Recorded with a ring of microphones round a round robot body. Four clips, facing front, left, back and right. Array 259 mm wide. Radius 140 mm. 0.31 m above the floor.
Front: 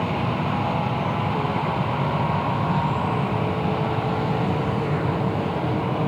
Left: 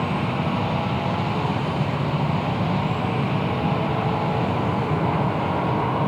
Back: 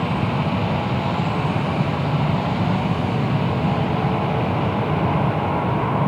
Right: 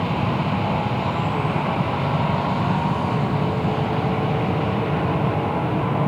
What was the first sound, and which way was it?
Only background noise.